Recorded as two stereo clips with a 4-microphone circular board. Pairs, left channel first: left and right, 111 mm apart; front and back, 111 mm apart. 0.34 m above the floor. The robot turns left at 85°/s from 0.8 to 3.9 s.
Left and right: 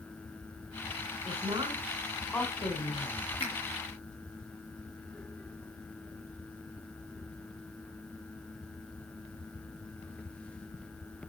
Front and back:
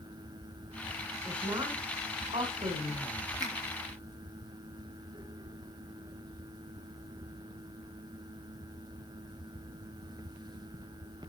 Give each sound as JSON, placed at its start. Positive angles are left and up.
{"t": 1.2, "sound": "a woman speaking", "azimuth_deg": -90, "distance_m": 2.5}
{"t": 3.4, "sound": "a finger snap", "azimuth_deg": 130, "distance_m": 4.5}